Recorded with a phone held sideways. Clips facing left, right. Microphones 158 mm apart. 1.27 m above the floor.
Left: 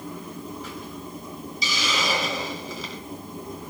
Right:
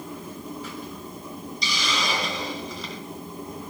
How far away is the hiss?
About 2.5 m.